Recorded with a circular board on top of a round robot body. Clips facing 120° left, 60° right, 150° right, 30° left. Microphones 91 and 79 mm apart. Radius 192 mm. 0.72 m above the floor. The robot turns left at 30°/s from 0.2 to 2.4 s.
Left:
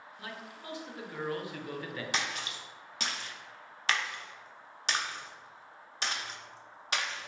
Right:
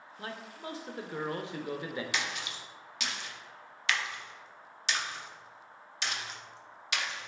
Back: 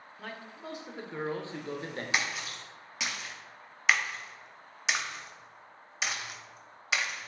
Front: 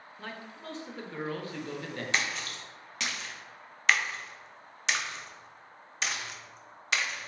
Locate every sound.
0.2 s a man speaking: 60° right, 0.7 m; by 2.0 s 115° right, 0.7 m
2.1 s a splash: 135° left, 0.8 m; by 7.3 s 130° left, 0.8 m